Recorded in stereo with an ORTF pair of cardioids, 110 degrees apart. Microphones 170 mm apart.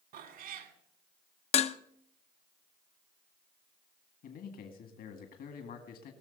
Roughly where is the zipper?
No zipper in this recording.